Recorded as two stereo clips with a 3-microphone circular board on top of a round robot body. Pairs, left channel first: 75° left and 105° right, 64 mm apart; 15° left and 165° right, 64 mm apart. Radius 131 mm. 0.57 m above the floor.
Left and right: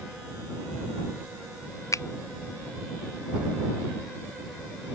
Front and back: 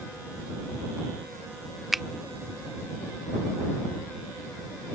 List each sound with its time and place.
1.9 s a finger snap: 110° left